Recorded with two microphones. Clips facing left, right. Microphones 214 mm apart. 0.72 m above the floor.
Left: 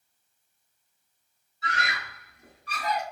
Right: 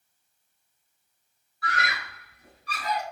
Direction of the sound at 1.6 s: 25° left (ahead or behind).